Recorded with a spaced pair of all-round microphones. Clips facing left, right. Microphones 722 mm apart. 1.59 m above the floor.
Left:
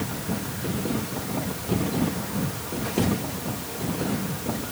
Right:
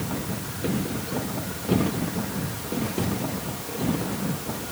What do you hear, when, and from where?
Only background noise.